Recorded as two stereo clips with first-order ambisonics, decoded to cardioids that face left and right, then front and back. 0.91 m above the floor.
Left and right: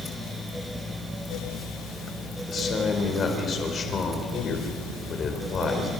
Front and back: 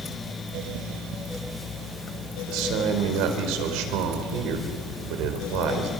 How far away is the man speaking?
About 4 m.